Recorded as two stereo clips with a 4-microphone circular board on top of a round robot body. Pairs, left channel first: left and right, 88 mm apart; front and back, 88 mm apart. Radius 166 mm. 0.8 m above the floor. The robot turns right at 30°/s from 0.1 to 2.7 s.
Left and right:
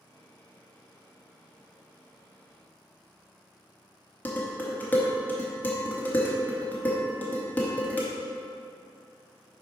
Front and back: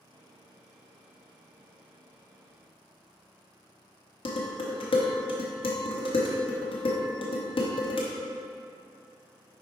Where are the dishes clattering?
20° left, 0.9 m.